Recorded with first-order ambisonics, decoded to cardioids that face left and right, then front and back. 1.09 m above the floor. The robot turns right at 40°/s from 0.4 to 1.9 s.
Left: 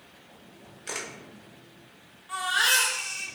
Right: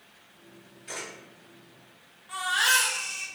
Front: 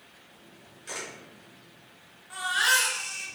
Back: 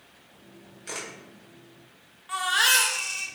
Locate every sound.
0.9 s a camera shutter: 105° left, 1.0 m; by 1.1 s 115° left, 1.0 m
2.3 s a baby crying: 175° left, 0.7 m